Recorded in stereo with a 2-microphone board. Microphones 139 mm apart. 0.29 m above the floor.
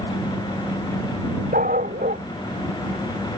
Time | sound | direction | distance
1.5 | a dog barking | 80° right | ?